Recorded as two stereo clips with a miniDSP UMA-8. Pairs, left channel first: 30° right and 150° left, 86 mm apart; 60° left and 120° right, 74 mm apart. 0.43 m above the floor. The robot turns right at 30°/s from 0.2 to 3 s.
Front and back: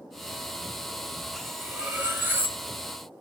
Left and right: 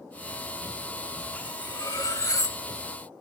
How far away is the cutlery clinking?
About 1.1 m.